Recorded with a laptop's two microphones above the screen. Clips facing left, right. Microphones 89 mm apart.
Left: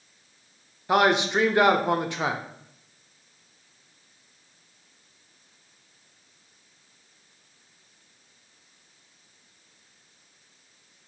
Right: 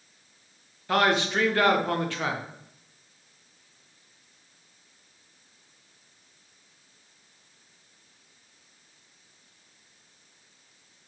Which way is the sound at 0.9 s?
20° left (ahead or behind).